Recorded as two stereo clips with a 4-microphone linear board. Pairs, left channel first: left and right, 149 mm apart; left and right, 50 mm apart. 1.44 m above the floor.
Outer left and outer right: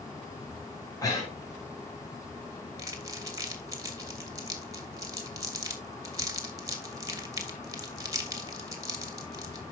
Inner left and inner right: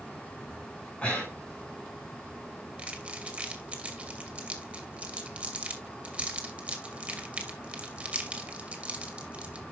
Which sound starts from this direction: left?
Breathing, at 1.0 s.